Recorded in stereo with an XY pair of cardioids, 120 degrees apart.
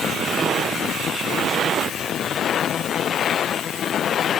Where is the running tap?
No running tap in this recording.